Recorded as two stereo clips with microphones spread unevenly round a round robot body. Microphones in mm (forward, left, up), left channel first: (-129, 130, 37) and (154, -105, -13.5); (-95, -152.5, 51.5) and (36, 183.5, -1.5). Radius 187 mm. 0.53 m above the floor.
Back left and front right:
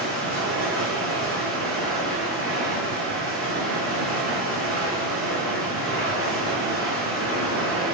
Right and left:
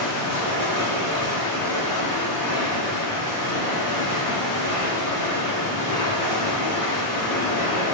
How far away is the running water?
About 0.9 m.